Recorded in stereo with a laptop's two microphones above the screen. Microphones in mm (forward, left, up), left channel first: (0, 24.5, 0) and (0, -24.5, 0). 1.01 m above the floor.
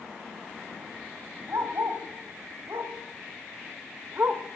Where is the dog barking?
80° right, 2.5 m; by 4.4 s 50° right (ahead or behind), 1.3 m.